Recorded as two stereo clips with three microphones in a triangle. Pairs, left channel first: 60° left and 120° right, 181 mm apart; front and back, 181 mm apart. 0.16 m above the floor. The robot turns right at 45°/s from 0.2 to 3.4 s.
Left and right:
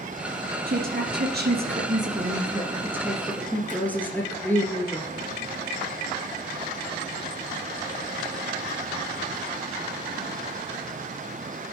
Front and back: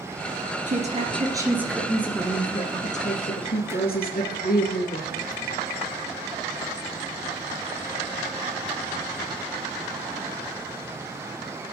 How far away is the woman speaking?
About 2 m.